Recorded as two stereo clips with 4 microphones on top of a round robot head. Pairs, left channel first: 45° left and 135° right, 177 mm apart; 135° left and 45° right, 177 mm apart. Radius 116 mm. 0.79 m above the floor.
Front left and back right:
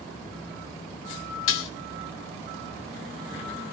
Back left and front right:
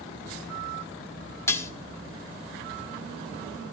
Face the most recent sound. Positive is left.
turn(degrees=55)